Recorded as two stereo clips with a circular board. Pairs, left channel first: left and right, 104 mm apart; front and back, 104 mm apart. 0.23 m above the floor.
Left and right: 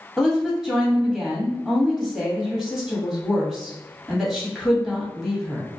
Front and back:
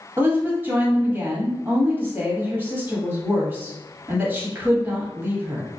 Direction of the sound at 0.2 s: 170° right.